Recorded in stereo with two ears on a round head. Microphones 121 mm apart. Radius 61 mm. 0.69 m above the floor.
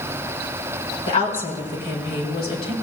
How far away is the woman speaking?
About 4 m.